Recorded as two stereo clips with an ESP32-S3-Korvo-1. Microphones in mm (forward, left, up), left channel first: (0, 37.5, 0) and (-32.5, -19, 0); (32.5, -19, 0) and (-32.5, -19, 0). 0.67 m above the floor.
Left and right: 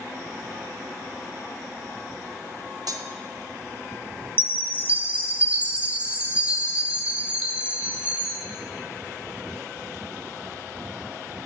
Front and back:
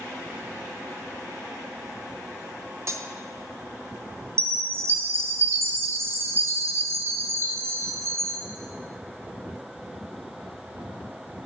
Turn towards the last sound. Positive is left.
turn(degrees=-175)